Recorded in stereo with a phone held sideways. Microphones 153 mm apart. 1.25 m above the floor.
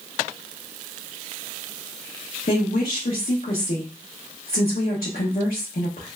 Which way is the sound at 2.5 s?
80° left.